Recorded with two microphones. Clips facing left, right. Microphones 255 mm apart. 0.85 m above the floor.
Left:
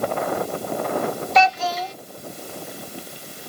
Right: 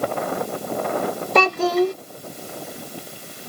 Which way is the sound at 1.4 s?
60° right (ahead or behind).